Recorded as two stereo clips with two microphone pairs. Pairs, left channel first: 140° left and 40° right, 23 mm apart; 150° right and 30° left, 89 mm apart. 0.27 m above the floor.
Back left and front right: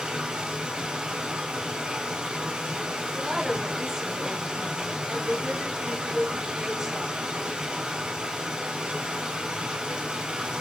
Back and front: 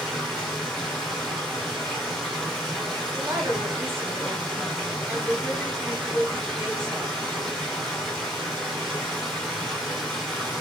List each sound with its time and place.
0.0 s running water: 65° right, 2 m
3.1 s a woman speaking: 5° right, 1.1 m